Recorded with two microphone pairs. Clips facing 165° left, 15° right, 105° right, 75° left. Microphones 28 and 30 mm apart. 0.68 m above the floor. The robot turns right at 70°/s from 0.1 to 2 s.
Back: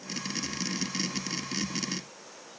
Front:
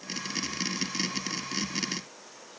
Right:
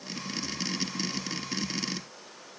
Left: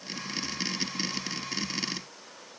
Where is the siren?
No siren in this recording.